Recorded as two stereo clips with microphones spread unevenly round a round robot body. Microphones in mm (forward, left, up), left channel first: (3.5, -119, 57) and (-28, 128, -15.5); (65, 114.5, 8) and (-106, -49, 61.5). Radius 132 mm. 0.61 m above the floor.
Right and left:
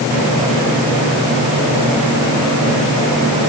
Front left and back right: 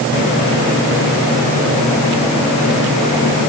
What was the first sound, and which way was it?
Only background noise.